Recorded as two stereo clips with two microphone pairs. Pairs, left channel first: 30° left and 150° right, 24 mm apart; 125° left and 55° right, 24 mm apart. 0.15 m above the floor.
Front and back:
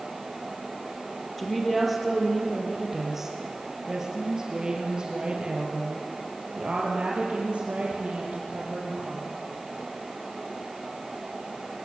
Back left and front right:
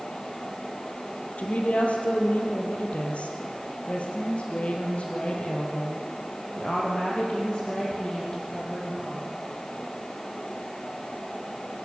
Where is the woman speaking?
115° left, 4 m; by 9.2 s 170° right, 5.5 m.